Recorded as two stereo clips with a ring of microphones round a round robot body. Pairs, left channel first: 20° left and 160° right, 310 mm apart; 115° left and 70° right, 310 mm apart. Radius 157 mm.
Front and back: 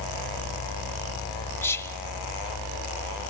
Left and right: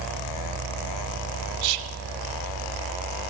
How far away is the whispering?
About 1.5 m.